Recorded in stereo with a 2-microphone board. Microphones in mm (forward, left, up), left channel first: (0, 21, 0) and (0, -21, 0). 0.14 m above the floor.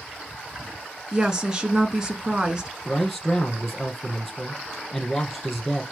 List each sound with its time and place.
1.1 s a woman speaking: 15° right (ahead or behind), 1.2 m
2.9 s a man speaking: 5° left (ahead or behind), 4.5 m